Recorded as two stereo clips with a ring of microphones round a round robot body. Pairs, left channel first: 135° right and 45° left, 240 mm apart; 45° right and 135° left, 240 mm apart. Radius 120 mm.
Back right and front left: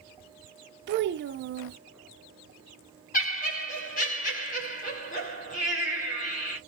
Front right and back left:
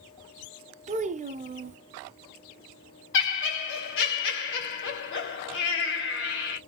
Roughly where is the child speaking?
Left.